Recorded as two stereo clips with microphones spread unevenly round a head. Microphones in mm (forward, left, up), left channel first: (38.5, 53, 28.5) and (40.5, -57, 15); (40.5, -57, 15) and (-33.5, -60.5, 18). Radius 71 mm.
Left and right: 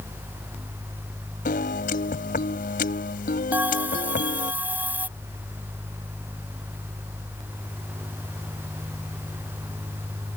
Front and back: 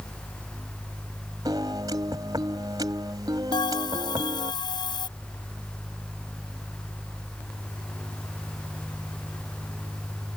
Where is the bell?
15° right.